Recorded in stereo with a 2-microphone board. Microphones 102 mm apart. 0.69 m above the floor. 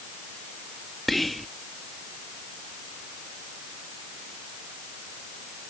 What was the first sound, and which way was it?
Whispering, centre (ahead or behind).